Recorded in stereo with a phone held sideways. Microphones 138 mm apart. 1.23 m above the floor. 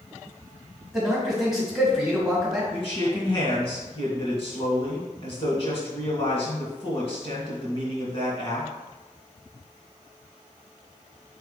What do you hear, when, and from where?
0.9 s a man speaking: 5° right (ahead or behind), 1.7 m
2.7 s a man speaking: 45° left (ahead or behind), 1.8 m